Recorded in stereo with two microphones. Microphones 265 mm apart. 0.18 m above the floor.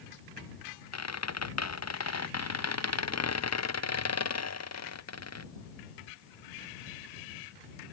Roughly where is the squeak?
Left.